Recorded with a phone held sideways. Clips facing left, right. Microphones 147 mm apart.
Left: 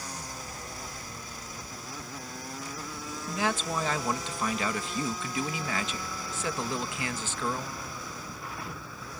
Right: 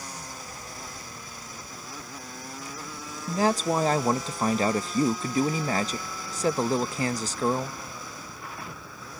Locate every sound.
3.3 s a man speaking: 40° right (ahead or behind)